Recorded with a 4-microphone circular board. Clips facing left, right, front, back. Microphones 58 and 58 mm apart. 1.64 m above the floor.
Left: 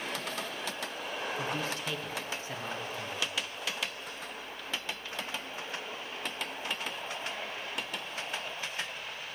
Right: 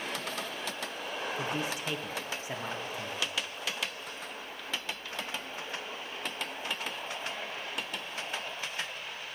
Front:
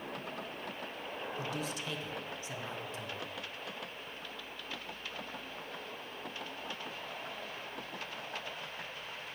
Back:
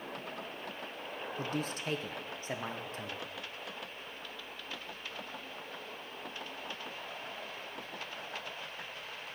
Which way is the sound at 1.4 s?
155° right.